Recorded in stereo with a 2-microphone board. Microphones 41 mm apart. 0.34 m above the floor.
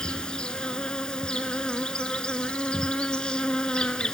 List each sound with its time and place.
0.0 s an insect: 25° left (ahead or behind), 0.7 m